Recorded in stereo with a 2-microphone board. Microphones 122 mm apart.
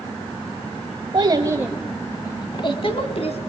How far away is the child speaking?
About 1.1 m.